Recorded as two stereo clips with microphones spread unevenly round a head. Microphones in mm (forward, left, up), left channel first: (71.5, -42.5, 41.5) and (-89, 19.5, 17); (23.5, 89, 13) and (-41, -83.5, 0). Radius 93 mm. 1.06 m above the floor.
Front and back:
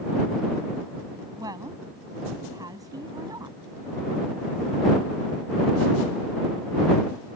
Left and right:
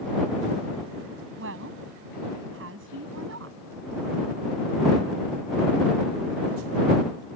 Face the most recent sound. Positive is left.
turn(degrees=-130)